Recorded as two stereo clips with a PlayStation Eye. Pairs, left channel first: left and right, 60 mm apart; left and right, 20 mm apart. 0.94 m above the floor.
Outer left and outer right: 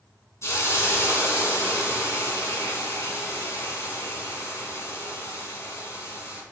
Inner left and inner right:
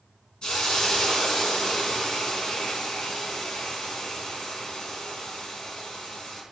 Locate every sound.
0.4 s a hiss: 50° left (ahead or behind), 3.5 m